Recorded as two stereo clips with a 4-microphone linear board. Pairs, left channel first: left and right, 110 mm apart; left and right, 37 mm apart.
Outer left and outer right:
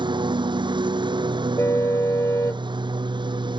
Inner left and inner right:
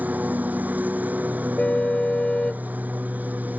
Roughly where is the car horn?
Left.